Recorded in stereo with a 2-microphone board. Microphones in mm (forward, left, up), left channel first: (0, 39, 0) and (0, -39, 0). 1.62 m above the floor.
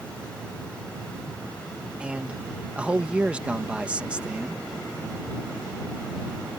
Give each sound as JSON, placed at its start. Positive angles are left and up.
{"t": 2.0, "sound": "a man speaking", "side_deg": -15}